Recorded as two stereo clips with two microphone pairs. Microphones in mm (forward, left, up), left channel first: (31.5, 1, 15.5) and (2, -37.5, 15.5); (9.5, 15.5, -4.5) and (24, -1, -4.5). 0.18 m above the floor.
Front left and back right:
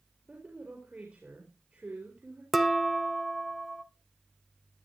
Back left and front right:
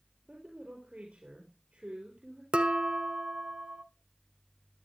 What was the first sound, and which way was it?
A woman speaking, 70° right.